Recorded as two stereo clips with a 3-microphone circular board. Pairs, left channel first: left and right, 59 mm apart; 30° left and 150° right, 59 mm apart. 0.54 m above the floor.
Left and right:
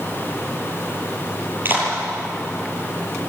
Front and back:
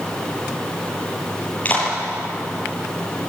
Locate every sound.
1.6 s a clap: 35° right, 9 m